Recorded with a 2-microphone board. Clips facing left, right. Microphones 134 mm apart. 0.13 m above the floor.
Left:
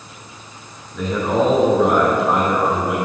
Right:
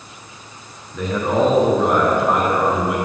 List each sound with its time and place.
0.9 s a man speaking: centre (ahead or behind), 1.3 m